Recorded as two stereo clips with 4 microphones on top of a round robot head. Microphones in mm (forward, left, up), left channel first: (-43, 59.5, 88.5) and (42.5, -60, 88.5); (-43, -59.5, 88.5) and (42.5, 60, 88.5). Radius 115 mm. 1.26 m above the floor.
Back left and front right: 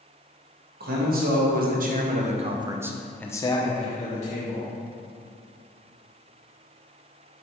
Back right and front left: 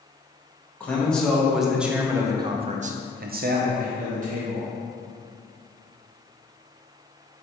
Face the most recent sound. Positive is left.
turn(degrees=95)